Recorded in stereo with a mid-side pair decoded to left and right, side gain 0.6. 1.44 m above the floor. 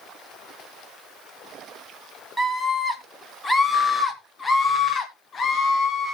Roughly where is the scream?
Ahead.